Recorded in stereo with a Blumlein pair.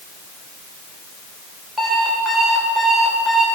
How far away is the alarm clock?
About 2.5 m.